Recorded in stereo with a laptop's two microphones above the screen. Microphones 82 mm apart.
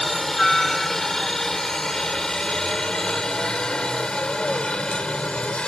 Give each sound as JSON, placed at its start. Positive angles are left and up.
{"t": 0.0, "sound": "a helicopter", "side_deg": 5}